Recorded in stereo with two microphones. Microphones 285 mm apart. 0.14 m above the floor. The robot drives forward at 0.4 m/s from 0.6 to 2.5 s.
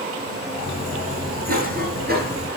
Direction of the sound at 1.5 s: 30° right (ahead or behind).